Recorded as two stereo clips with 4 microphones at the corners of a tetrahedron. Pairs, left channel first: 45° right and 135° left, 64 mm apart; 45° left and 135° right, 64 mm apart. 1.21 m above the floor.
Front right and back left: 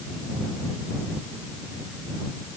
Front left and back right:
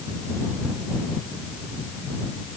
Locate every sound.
Only background noise.